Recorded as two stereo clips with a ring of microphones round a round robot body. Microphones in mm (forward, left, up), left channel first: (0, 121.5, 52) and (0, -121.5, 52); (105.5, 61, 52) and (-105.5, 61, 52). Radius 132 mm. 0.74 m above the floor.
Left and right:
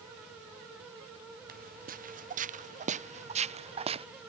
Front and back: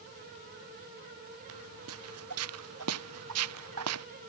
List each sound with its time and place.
1.5 s footsteps: 145° right; by 4.1 s 160° right